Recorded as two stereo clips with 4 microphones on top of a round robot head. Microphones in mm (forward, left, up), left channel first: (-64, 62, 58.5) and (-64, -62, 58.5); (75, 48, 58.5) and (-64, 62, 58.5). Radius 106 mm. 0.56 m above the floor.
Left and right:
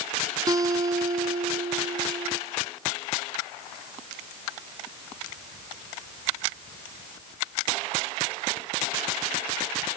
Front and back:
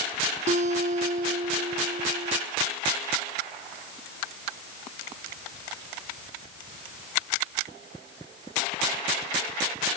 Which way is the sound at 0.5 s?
150° right.